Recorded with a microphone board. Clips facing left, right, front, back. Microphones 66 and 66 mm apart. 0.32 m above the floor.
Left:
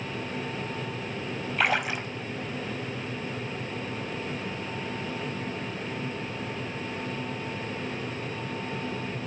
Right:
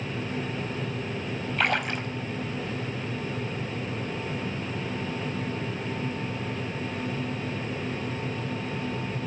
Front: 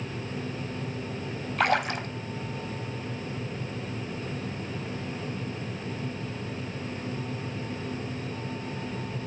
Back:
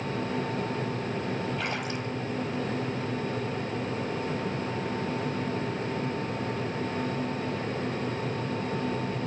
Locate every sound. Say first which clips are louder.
1.6 s a splash: left 1 dB, front 6 dB; 5° left, 0.9 m